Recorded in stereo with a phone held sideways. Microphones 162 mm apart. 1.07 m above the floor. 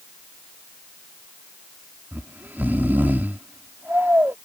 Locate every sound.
2.1 s snoring: 15° right (ahead or behind)